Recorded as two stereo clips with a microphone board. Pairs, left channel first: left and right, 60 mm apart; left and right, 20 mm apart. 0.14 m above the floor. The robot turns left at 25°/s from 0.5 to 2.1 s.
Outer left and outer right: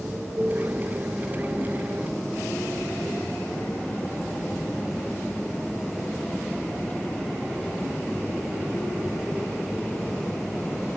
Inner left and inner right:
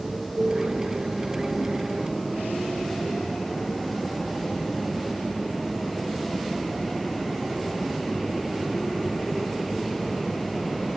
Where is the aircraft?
160° right; by 11.0 s 160° left.